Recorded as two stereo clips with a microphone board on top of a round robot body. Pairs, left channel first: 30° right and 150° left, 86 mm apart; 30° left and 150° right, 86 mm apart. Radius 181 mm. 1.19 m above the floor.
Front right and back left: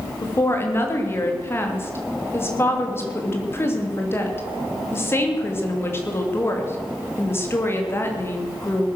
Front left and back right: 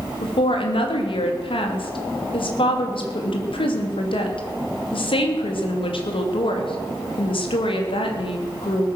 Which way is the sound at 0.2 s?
35° left.